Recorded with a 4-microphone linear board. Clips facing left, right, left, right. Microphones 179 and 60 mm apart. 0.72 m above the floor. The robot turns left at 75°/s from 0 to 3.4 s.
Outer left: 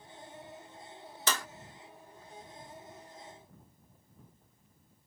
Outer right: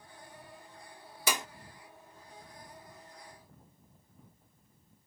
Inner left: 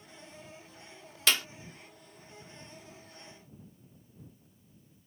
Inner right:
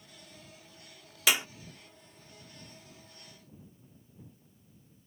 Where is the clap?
10° right (ahead or behind); by 1.5 s 25° right (ahead or behind).